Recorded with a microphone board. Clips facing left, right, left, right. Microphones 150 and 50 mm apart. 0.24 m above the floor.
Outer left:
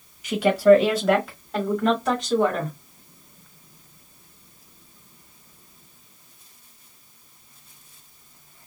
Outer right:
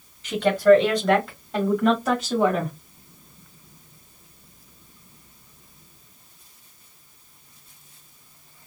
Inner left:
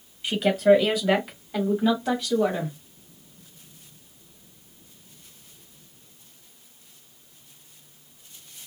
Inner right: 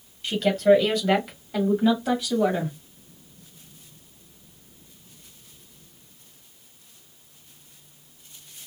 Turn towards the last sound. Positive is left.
turn(degrees=-10)  # may be behind; listen again after turning